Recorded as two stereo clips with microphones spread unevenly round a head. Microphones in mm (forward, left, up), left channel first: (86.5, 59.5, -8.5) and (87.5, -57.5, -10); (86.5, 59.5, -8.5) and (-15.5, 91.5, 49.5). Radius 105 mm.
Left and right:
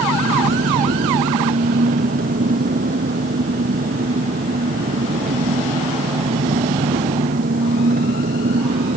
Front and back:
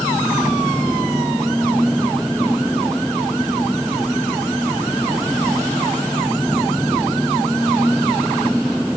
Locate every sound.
0.0 s an engine running: 110° right